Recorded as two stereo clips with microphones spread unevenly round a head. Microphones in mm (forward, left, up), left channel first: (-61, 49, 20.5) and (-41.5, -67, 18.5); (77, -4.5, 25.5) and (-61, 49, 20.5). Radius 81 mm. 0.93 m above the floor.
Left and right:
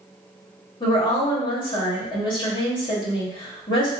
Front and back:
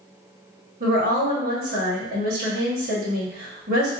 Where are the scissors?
No scissors in this recording.